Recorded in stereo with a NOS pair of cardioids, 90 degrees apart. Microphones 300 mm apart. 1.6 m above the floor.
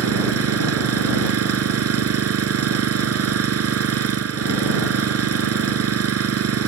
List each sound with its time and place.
0.0 s an engine running: 50° right